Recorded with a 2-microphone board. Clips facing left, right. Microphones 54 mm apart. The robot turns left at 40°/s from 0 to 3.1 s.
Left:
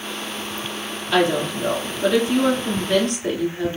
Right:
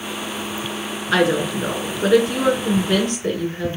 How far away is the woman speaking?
About 1.6 m.